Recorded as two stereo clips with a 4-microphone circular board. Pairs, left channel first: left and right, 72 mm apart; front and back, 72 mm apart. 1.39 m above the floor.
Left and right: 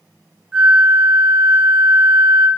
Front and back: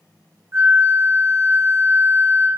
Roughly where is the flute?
Behind.